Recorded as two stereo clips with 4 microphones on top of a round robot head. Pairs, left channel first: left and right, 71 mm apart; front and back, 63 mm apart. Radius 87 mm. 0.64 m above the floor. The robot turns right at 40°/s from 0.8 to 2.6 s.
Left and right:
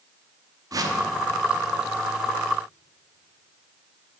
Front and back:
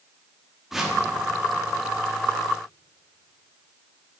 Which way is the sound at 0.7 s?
95° right.